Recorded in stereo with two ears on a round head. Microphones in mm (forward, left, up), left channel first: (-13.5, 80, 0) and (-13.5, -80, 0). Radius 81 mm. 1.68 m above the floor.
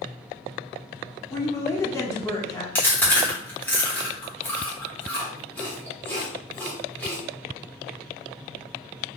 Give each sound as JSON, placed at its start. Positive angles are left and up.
{"t": 1.3, "sound": "a woman speaking", "side_deg": 15, "distance_m": 0.6}
{"t": 2.8, "sound": "chewing", "side_deg": 10, "distance_m": 1.0}